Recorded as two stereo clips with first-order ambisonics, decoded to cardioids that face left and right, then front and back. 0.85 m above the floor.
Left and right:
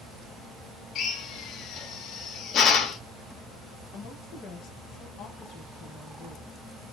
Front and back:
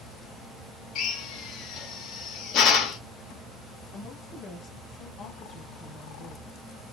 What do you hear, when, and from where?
0.9 s a drill: 40° left, 0.7 m
3.9 s a woman speaking: 55° left, 1.0 m